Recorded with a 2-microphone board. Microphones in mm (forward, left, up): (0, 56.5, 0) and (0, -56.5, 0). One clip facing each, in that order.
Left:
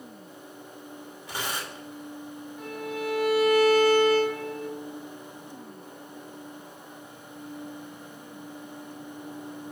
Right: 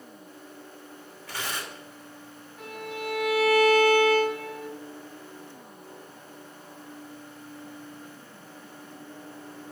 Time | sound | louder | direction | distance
1.3 | tearing paper | left 1 dB | 15° left (ahead or behind) | 2.5 m
2.6 | a violin | left 2 dB | 5° right (ahead or behind) | 4.5 m